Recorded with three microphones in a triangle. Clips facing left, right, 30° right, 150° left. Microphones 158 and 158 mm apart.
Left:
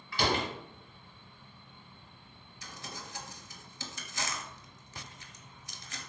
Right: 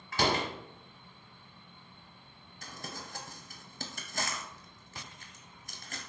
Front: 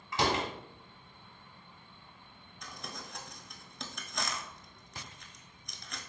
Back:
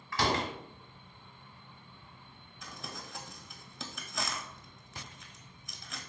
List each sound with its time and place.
0.1 s a door slam: 90° right, 0.9 m
2.6 s crumpling: 120° right, 0.6 m